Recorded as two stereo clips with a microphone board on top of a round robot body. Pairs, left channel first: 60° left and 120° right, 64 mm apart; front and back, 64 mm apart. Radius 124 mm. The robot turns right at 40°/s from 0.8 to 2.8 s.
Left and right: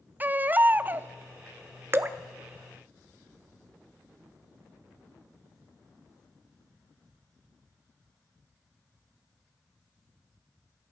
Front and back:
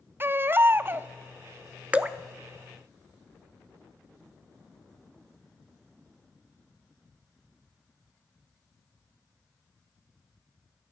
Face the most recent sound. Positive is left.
turn(degrees=-90)